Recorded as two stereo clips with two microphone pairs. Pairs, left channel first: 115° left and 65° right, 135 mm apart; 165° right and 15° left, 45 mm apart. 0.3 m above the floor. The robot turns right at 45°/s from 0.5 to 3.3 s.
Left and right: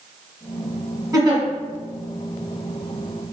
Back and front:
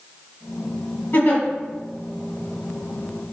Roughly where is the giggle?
Behind right.